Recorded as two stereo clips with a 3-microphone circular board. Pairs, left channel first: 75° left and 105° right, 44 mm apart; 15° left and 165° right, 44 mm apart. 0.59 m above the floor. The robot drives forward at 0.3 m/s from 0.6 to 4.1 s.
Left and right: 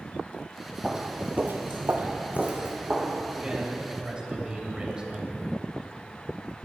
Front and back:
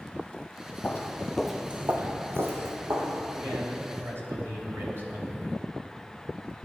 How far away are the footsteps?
About 1.4 m.